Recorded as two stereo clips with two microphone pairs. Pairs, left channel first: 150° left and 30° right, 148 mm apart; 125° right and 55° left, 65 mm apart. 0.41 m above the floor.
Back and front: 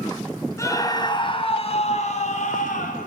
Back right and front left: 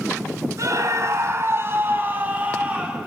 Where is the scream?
80° left, 2.5 m; by 3.1 s 130° left, 3.5 m.